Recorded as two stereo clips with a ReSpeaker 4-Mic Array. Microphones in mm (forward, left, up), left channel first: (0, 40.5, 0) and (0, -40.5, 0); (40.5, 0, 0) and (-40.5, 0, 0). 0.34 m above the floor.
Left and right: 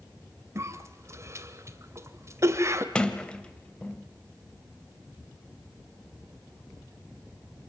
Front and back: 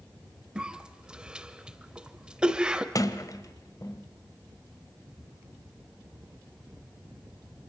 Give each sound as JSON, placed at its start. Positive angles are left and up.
{"t": 0.6, "sound": "a cough", "azimuth_deg": -110, "distance_m": 1.6}
{"t": 3.0, "sound": "a sliding door", "azimuth_deg": 15, "distance_m": 1.4}